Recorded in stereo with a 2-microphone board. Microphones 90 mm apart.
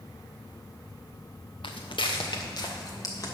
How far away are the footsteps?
About 1.2 m.